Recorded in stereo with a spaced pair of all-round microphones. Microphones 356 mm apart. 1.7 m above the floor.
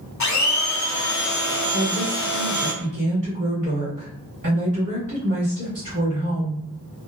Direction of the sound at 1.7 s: 60° right (ahead or behind).